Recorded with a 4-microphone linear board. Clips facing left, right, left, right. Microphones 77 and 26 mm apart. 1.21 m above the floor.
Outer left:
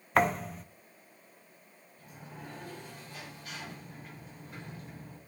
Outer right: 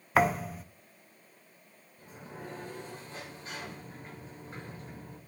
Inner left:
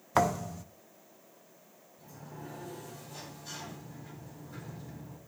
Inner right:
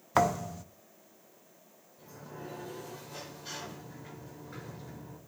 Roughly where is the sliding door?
Right.